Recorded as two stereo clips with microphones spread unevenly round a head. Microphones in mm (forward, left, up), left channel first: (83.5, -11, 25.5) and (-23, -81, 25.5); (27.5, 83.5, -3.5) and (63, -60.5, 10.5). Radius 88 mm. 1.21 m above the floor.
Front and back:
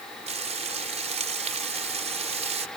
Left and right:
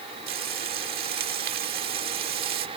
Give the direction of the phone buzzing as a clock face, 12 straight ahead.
No phone buzzing in this recording.